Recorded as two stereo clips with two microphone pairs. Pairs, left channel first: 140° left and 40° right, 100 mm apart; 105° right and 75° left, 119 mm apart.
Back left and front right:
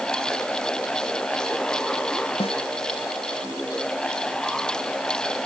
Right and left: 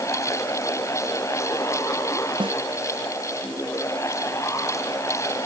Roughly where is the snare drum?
Behind left.